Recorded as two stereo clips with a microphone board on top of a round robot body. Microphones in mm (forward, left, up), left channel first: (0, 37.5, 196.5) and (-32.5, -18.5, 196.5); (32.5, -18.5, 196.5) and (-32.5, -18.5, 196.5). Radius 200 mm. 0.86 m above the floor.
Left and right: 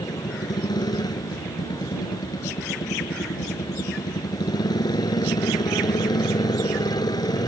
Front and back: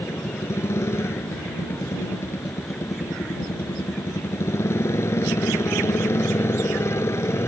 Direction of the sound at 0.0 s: 50° left.